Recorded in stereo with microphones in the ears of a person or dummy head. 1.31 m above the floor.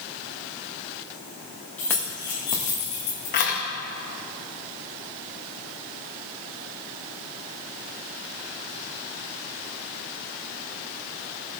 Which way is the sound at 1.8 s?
5° left (ahead or behind).